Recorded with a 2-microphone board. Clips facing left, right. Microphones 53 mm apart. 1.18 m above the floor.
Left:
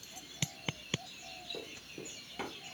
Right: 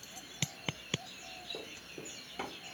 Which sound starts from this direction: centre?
Running footsteps, at 1.5 s.